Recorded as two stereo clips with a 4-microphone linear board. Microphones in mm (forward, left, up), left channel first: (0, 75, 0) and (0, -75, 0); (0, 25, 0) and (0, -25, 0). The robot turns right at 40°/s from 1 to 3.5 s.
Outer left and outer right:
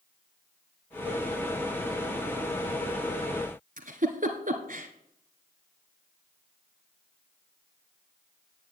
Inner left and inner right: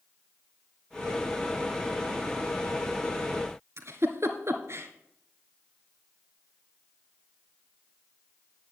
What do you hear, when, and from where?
3.8 s a giggle: 65° right (ahead or behind), 1.5 m